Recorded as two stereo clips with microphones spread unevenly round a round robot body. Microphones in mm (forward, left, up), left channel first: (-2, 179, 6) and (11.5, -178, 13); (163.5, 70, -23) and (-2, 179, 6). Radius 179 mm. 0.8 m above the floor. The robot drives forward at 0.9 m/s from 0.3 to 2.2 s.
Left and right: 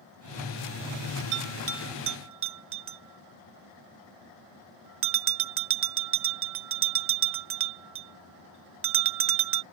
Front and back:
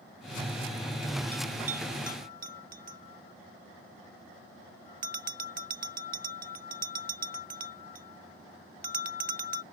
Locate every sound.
1.3 s a bell: 135° right; by 9.6 s 145° right